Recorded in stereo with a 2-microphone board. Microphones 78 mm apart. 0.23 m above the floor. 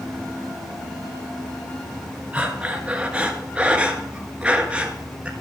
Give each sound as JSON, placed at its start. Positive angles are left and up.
{"t": 2.3, "sound": "breathing", "side_deg": -15, "distance_m": 1.3}